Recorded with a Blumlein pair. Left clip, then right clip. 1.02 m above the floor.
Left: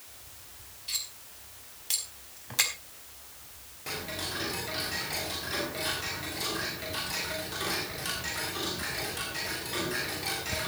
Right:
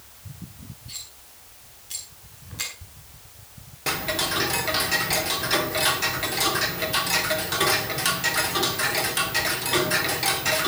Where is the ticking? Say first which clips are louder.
Right 10 dB; 60° right, 2 m.